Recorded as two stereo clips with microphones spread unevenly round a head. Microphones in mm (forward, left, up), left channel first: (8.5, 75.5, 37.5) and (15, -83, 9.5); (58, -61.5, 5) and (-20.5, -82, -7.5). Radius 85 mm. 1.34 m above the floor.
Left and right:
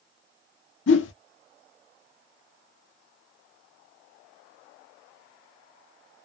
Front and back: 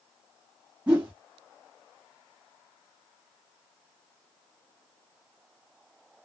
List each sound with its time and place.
0.9 s a whoosh: 110° left, 0.5 m